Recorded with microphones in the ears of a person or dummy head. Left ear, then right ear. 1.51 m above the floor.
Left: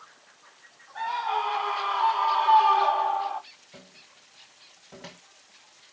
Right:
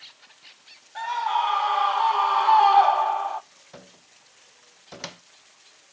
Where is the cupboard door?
75° right (ahead or behind), 1.1 m.